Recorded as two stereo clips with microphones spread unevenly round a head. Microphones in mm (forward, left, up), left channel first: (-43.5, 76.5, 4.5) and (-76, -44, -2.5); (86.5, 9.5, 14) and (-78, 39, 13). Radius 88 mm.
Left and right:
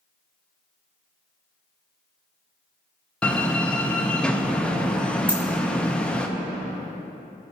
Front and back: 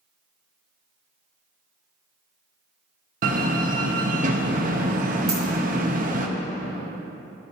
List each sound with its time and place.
3.2 s a door slam: 150° left, 0.6 m
5.3 s a dropped coin: straight behind, 1.9 m